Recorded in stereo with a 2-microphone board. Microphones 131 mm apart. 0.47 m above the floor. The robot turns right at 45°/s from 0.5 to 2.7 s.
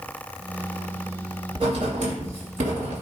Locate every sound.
1.6 s writing: 50° right (ahead or behind), 1.5 m; by 3.0 s 80° right, 1.5 m